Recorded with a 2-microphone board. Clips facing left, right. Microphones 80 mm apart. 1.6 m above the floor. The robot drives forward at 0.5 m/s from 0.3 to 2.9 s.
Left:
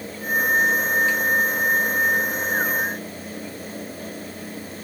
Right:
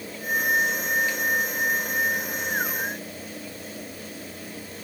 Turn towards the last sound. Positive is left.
No sound to turn to.